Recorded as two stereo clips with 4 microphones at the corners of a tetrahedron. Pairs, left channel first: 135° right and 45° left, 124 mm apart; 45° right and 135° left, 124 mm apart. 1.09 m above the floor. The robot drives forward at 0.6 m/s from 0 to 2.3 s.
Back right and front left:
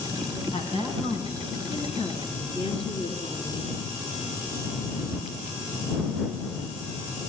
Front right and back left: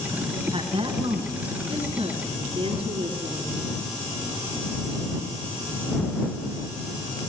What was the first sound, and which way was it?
A woman speaking, 175° right.